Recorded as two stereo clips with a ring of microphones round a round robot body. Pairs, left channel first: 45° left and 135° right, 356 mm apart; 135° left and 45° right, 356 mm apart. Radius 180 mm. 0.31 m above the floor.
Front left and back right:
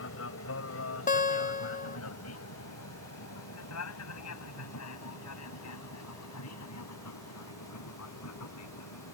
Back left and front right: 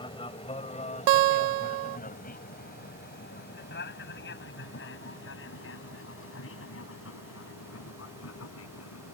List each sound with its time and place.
0.0 s an aircraft: 65° left; by 9.1 s 90° left
1.1 s a guitar: 25° right